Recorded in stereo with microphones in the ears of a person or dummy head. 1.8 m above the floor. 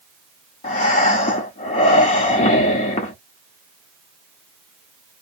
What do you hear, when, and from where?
0.6 s breathing: 45° left (ahead or behind), 1.0 m